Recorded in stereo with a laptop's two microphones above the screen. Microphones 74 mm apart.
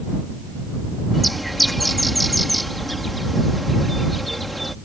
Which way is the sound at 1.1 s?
Centre (ahead or behind).